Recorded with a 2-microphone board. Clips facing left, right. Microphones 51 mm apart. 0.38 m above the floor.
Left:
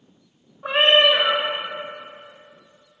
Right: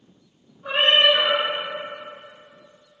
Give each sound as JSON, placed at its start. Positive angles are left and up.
{"t": 0.6, "sound": "a cat meowing", "side_deg": 65, "distance_m": 0.5}